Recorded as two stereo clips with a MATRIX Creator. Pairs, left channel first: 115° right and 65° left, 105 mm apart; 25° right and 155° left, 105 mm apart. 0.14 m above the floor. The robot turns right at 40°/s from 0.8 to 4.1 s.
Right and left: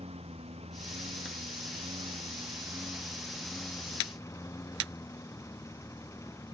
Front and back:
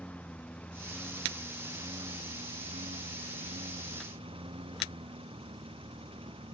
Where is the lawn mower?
55° left; by 6.5 s 175° right.